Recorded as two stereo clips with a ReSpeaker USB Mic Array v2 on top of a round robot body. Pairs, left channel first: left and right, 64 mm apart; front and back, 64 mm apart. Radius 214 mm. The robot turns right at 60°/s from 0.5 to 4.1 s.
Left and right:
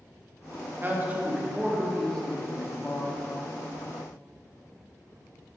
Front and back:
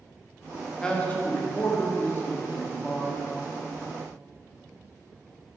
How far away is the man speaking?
About 1.4 m.